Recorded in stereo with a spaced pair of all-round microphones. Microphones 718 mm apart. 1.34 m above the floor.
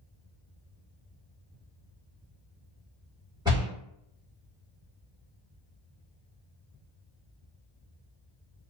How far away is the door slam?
About 1.3 m.